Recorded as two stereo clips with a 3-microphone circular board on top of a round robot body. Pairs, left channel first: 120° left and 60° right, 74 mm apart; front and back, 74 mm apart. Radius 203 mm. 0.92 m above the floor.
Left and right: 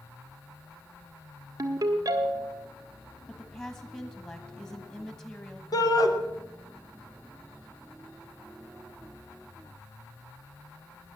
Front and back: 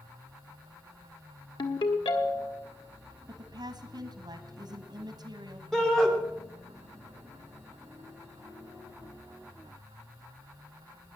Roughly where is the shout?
Left.